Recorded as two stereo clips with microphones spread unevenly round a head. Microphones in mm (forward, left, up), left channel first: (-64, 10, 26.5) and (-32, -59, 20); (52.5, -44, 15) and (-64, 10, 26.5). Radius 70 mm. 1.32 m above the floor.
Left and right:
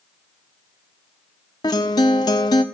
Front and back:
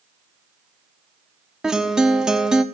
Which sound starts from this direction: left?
A guitar, at 1.6 s.